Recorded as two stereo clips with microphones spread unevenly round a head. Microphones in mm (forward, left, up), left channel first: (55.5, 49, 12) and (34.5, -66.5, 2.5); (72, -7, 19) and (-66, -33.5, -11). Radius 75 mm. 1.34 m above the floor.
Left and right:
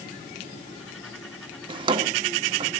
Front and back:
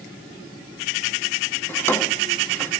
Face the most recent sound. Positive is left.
turn(degrees=-55)